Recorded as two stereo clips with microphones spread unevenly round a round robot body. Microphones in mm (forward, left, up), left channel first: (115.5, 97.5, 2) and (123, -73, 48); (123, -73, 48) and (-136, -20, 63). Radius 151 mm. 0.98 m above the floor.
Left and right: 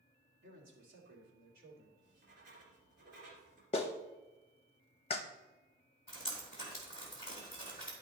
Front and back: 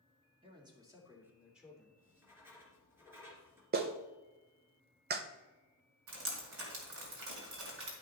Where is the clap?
120° left, 0.7 m.